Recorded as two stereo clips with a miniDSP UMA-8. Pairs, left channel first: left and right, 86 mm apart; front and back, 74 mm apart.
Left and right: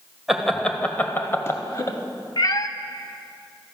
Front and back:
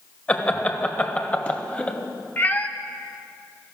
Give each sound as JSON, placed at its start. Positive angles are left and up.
{"t": 0.3, "sound": "laughter", "azimuth_deg": -10, "distance_m": 0.9}
{"t": 2.4, "sound": "a cat meowing", "azimuth_deg": 65, "distance_m": 0.6}